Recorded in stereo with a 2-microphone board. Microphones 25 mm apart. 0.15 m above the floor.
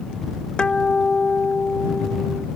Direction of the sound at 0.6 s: 40° left (ahead or behind).